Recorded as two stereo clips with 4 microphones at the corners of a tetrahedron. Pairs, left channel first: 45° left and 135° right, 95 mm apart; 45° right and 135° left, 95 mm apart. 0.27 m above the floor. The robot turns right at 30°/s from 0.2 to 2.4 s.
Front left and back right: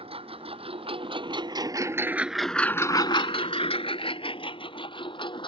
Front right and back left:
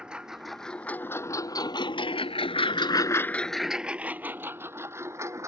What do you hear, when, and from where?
0.0 s a lawn mower: 145° right; by 5.5 s 75° left